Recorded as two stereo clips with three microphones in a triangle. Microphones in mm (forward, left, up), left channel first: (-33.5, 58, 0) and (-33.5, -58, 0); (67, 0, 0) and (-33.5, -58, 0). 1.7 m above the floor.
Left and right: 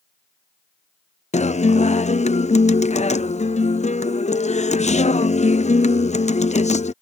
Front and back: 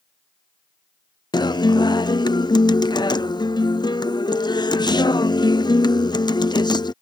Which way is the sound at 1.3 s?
80° left.